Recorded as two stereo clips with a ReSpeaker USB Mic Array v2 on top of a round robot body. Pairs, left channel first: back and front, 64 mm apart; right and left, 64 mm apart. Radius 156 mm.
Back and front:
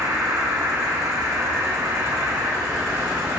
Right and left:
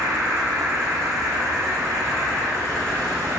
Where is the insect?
35° left, 1.3 m.